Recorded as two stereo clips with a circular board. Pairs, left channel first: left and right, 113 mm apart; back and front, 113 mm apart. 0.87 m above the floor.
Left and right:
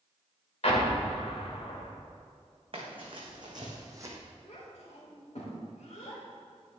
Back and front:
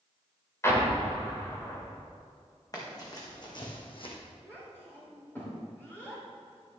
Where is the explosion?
115° left, 1.8 m.